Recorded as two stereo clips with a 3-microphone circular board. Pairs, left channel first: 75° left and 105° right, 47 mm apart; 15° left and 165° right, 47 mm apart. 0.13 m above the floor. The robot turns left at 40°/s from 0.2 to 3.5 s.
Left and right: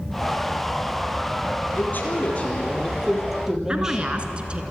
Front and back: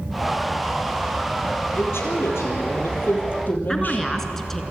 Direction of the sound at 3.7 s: 60° right.